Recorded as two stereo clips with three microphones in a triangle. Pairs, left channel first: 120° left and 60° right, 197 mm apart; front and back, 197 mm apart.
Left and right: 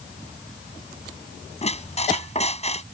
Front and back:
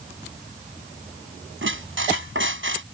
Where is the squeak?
175° left.